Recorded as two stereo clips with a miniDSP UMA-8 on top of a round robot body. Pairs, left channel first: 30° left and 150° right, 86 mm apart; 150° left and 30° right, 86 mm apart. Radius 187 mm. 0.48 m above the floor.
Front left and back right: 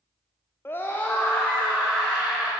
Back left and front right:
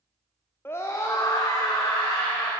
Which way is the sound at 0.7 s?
90° left.